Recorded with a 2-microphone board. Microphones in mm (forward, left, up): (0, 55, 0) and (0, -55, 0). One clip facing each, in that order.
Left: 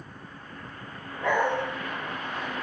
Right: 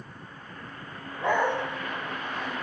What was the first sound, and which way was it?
A dog barking, 25° right (ahead or behind).